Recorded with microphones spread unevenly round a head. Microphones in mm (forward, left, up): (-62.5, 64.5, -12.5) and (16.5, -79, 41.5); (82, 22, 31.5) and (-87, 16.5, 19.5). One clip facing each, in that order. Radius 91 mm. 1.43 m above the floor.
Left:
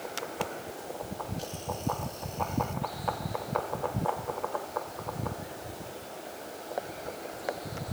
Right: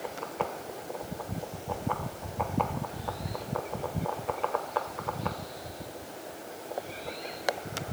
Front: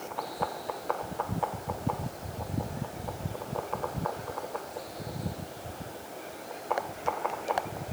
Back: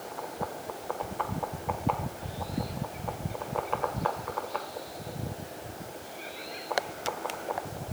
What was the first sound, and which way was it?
Only background noise.